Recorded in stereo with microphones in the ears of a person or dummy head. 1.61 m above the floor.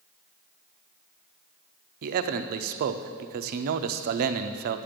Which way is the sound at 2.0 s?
50° right (ahead or behind).